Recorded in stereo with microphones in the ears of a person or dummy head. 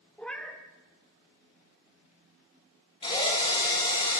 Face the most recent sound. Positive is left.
turn(degrees=30)  # may be behind; listen again after turning